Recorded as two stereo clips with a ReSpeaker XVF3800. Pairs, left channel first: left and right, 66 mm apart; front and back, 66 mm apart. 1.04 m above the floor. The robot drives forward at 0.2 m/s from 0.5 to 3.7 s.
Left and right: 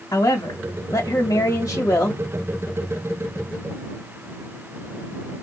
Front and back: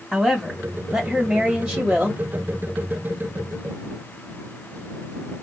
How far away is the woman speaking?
About 1.5 m.